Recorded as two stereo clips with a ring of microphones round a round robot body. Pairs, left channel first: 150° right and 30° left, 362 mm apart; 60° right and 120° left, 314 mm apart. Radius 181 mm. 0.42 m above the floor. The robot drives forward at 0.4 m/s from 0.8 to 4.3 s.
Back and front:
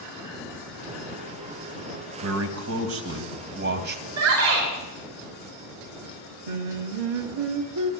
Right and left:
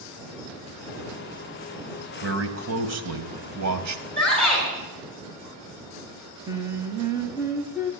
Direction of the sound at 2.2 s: 75° left.